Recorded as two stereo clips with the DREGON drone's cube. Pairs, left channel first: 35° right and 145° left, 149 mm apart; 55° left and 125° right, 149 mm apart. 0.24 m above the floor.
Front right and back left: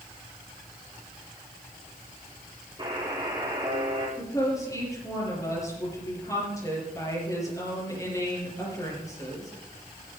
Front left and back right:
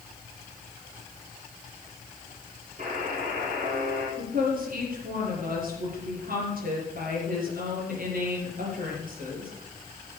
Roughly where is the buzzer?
Behind right.